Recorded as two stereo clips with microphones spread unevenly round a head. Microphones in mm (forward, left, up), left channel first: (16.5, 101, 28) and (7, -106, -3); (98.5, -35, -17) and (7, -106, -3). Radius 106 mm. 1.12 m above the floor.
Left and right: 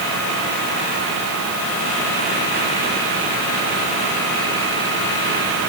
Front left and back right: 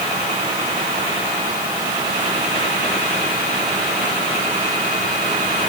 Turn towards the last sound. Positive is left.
No sound to turn to.